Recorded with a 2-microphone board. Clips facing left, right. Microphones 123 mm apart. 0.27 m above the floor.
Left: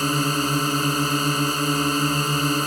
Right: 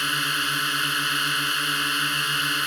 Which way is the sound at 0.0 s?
40° left (ahead or behind).